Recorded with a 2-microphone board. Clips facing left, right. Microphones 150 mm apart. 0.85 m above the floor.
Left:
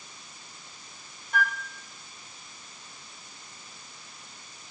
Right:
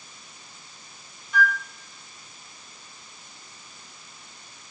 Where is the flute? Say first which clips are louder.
Right 5 dB; 50° left (ahead or behind), 0.6 m.